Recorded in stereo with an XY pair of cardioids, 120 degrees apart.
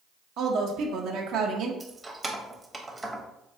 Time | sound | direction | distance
0.4 | a woman speaking | 70° right | 0.5 m
1.8 | keys jangling | 15° right | 0.6 m